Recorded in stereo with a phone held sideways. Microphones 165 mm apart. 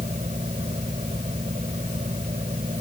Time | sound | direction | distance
0.0 | a fan | 45° right (ahead or behind) | ?